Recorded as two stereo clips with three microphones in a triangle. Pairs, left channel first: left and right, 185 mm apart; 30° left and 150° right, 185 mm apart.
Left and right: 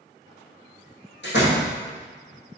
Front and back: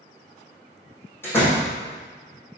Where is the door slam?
110° left, 3.5 m.